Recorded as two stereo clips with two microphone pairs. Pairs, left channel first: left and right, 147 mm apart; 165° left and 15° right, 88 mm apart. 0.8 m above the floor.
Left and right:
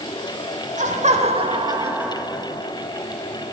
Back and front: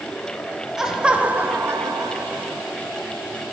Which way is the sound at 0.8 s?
100° right.